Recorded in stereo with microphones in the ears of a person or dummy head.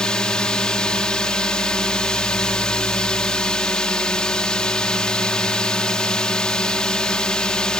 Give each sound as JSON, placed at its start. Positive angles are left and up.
{"t": 0.0, "sound": "a drone", "side_deg": 5}